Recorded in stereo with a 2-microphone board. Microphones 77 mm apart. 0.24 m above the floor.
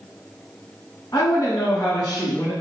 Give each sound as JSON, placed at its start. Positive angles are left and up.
{"t": 1.1, "sound": "a woman speaking", "side_deg": 50, "distance_m": 1.6}